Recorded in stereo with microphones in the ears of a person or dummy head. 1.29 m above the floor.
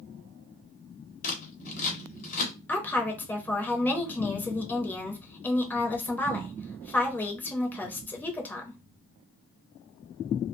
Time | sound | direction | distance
1.2 | scissors | 45° left (ahead or behind) | 1.3 m
2.7 | a woman speaking | 10° left (ahead or behind) | 0.8 m